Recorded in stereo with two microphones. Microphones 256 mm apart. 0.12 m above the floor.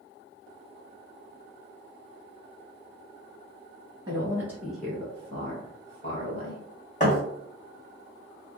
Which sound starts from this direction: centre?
A woman speaking, at 4.1 s.